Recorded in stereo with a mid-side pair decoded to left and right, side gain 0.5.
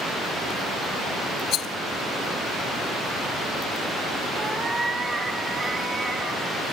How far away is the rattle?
About 1.6 m.